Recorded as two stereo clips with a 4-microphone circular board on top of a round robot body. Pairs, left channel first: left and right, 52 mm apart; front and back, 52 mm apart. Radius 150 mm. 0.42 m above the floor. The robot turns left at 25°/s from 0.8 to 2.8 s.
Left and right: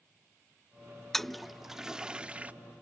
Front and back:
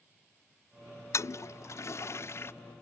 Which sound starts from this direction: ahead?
A toilet flushing, at 1.1 s.